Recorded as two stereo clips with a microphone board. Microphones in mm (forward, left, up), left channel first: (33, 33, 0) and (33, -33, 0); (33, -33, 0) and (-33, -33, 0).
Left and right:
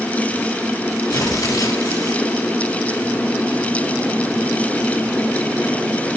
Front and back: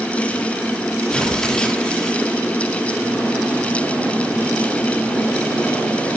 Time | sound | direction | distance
1.1 | tearing paper | 80° left | 4 m